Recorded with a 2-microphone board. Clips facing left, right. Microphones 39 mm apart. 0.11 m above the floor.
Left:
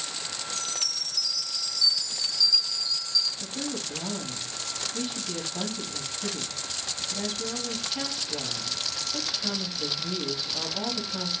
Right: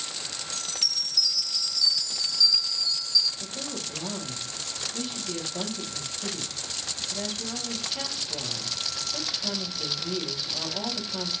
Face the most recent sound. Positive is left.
turn(degrees=0)  # may be behind; listen again after turning